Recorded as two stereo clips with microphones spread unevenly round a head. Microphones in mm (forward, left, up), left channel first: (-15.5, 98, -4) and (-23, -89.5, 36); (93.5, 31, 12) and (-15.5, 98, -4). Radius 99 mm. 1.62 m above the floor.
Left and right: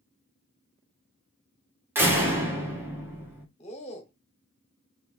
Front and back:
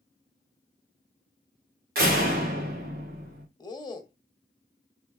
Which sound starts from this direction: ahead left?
A man speaking, at 3.6 s.